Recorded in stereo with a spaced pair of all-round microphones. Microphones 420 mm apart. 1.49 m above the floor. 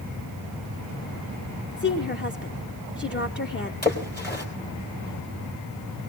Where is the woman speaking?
25° left (ahead or behind), 0.9 m.